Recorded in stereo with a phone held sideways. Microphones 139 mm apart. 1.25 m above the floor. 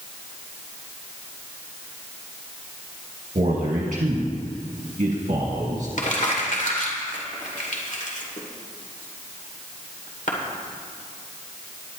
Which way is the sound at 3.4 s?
65° right (ahead or behind).